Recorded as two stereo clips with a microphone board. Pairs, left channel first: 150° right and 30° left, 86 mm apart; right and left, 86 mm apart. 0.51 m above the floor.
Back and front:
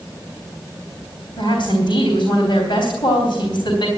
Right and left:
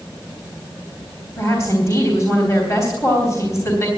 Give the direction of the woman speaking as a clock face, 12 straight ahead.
5 o'clock.